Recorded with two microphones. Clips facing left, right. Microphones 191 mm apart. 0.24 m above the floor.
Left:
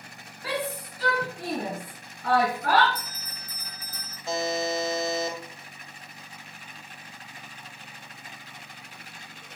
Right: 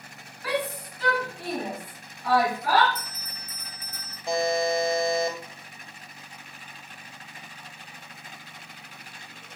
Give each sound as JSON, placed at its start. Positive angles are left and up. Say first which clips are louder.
{"t": 0.4, "sound": "a shout", "louder": "right 2 dB", "side_deg": 25, "distance_m": 2.5}
{"t": 3.0, "sound": "a bell", "louder": "even", "side_deg": 30, "distance_m": 3.0}
{"t": 4.3, "sound": "a buzzer", "louder": "right 3 dB", "side_deg": -15, "distance_m": 1.8}